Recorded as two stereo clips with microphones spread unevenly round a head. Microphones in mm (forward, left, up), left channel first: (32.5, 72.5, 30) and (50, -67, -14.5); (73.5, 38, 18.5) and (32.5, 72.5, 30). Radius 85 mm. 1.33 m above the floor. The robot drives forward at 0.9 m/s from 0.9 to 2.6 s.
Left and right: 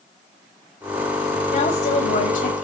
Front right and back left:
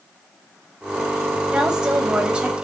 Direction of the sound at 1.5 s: 65° left.